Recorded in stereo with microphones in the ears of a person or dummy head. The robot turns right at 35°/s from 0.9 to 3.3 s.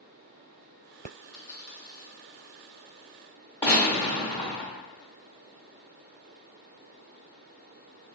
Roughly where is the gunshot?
Centre.